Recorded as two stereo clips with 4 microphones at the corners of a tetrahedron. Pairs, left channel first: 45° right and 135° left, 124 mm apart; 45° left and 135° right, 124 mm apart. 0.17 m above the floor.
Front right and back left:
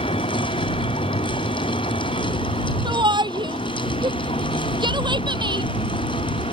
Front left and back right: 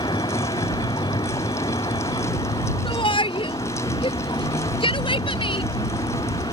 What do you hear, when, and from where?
0.0 s a vehicle: 10° right
2.9 s a shout: 85° left